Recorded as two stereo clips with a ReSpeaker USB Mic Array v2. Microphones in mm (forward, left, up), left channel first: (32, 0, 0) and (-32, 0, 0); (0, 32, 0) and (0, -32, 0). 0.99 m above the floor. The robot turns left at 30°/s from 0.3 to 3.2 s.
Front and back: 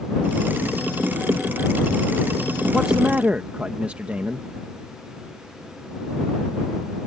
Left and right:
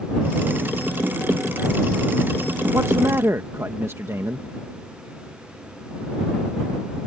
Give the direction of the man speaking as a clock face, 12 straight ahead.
3 o'clock.